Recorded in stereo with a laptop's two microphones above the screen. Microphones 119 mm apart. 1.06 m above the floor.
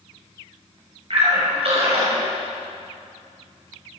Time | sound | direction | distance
1.1 | a splash | 60° right (ahead or behind) | 5.5 m